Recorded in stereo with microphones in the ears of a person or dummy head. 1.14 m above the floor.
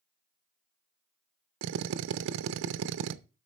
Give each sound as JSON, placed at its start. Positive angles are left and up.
{"t": 1.6, "sound": "a drill", "side_deg": -70, "distance_m": 0.6}